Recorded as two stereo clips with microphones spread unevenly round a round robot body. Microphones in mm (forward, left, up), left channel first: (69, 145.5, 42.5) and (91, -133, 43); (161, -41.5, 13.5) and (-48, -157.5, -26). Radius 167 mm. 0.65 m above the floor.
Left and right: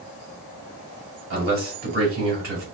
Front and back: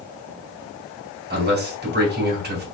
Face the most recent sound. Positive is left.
turn(degrees=-120)